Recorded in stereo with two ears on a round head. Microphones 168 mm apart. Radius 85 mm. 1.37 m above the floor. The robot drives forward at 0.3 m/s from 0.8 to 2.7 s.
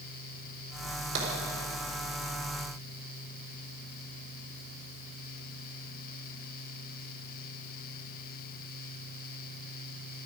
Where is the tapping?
80° right, 4 m.